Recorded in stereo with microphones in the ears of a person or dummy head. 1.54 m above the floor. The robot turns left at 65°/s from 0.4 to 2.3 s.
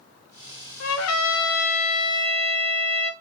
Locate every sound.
0.8 s a trumpet: 110° left, 1.0 m; by 3.1 s 10° left, 1.0 m